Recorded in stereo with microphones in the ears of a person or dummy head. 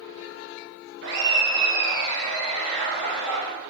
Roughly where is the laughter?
Right.